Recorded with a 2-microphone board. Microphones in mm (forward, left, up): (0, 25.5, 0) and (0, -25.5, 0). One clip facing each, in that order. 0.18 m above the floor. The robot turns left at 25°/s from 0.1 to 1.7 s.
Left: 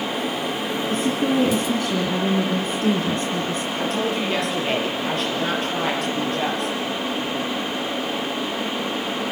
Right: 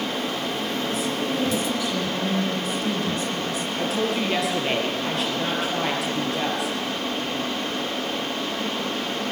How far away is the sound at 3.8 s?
About 4 m.